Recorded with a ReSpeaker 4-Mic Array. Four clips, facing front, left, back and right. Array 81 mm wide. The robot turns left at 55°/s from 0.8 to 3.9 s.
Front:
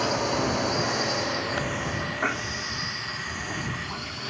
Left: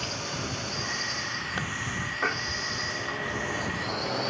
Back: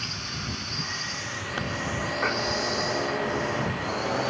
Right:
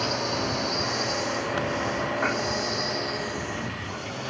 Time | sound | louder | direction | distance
0.0 | a drone | right 7 dB, front 12 dB | 35° right | ?